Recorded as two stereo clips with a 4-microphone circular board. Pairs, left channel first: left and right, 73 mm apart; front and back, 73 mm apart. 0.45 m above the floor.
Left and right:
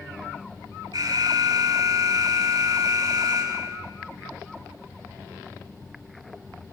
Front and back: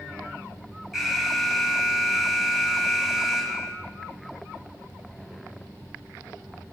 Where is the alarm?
90° right, 4 m.